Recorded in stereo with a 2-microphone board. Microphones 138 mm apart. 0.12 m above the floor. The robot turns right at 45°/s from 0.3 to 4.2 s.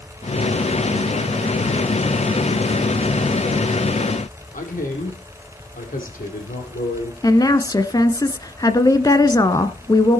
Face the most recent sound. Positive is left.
turn(degrees=25)  # may be behind; listen again after turning